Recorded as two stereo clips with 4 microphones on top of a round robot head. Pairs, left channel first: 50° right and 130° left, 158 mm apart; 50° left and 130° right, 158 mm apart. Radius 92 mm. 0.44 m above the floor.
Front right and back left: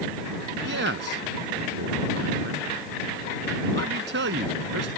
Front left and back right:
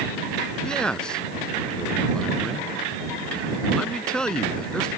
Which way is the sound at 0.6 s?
135° left.